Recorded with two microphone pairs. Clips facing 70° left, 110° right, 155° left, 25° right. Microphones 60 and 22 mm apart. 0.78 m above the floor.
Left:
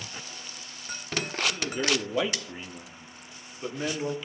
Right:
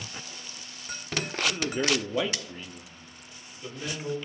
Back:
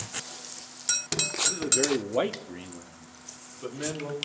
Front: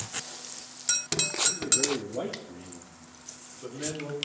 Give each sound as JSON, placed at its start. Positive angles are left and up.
{"t": 1.5, "sound": "a man speaking", "azimuth_deg": -175, "distance_m": 1.3}